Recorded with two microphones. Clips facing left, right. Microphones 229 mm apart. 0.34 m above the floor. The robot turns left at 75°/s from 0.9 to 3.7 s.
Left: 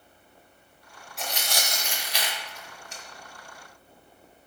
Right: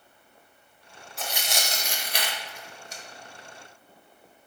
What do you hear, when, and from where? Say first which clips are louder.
1.2 s tearing paper: even; centre (ahead or behind), 0.6 m; by 3.0 s 30° right (ahead or behind), 0.6 m